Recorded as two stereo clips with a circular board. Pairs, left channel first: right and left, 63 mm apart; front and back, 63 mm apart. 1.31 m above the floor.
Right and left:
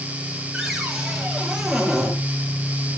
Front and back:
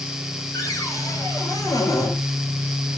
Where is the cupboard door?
5° left, 6.5 m.